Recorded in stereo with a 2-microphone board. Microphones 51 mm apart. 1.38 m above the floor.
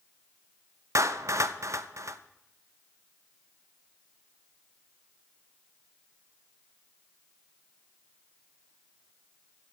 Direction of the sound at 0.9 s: 75° right (ahead or behind).